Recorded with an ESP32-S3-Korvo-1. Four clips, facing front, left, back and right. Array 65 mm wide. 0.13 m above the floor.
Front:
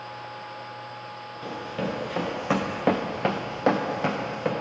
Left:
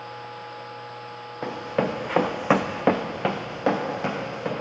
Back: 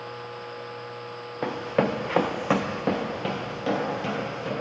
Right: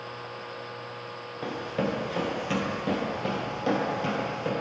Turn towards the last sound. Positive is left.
turn(degrees=25)